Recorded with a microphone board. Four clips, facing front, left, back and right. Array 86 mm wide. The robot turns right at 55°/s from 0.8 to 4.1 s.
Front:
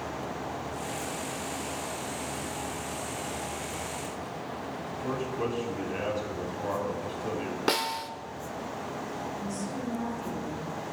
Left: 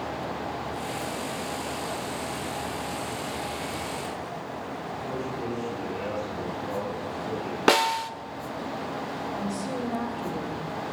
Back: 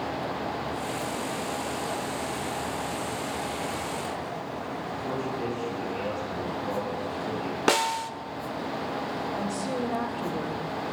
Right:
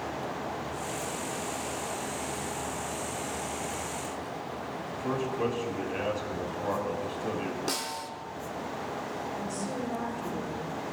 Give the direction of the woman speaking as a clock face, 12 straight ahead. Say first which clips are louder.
Left 3 dB, back 5 dB; 7 o'clock.